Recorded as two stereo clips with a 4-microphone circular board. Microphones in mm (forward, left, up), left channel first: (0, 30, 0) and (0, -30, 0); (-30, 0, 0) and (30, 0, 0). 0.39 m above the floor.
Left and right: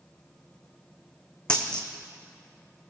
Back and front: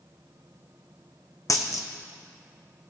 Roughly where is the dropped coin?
Behind.